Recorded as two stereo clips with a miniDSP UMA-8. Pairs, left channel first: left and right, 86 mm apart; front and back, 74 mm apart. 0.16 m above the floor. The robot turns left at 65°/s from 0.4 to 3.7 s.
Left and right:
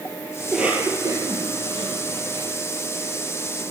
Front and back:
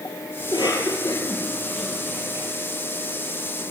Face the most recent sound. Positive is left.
turn(degrees=145)